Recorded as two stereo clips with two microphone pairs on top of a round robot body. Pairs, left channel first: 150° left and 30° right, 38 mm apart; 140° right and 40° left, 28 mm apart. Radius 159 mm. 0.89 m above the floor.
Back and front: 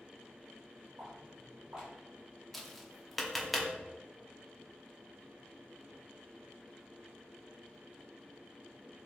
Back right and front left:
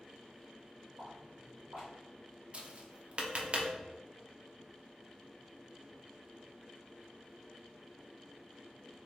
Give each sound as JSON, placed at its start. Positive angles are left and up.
{"t": 1.0, "sound": "footsteps", "azimuth_deg": 35, "distance_m": 1.2}
{"t": 2.5, "sound": "tapping", "azimuth_deg": 65, "distance_m": 1.0}